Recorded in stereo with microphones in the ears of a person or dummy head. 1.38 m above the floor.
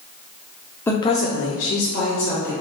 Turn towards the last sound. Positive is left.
turn(degrees=40)  # may be behind; listen again after turning